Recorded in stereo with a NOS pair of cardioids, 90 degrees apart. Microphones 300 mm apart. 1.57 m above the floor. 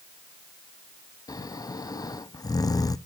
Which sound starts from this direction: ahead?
Snoring, at 1.3 s.